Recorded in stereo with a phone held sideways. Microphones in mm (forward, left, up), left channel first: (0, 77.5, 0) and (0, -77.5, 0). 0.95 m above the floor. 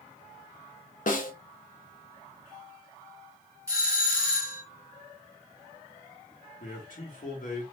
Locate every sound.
1.1 s a snare drum: 60° left (ahead or behind), 0.8 m
3.7 s a doorbell: 20° right (ahead or behind), 1.3 m
6.6 s a man speaking: 60° left (ahead or behind), 1.6 m